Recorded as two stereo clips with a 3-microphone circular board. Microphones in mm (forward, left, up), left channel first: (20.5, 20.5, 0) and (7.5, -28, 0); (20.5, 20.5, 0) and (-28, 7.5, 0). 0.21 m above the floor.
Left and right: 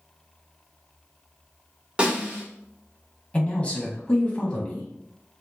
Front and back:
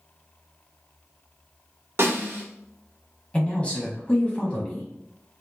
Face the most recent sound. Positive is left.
turn(degrees=50)